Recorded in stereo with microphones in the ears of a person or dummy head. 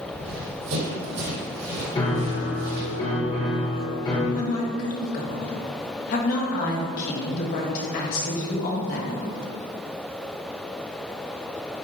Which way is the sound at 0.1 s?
55° right (ahead or behind).